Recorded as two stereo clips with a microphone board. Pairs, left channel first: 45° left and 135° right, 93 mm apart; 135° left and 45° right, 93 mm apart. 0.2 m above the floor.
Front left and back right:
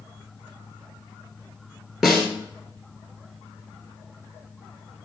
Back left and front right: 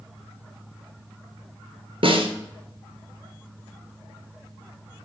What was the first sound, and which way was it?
A snare drum, 45° right.